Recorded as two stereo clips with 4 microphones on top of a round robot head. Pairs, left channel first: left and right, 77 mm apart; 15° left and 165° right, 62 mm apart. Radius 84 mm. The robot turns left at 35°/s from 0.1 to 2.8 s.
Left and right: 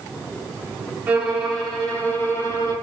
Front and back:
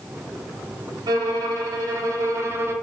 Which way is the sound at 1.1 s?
160° right.